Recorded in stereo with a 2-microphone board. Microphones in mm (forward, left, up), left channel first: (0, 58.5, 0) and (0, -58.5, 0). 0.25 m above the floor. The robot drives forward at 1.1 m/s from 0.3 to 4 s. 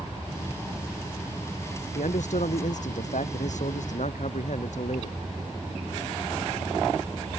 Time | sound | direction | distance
1.9 | a man speaking | 80° left | ?